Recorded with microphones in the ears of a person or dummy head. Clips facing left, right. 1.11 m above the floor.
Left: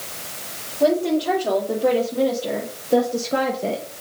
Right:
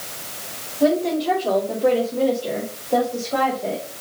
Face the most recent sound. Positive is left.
turn(degrees=55)  # may be behind; listen again after turning